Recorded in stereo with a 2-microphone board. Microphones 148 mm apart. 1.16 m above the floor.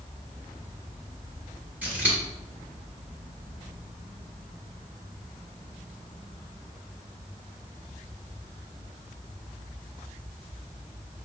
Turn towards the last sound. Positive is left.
turn(degrees=-10)  # may be behind; listen again after turning